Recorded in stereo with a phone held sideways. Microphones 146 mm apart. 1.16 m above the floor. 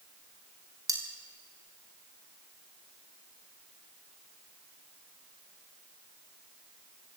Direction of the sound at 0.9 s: 25° right (ahead or behind).